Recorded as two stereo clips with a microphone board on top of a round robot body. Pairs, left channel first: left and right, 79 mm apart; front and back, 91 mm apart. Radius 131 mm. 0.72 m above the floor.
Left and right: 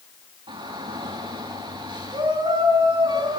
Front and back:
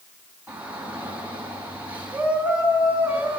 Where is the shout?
105° right, 7 m.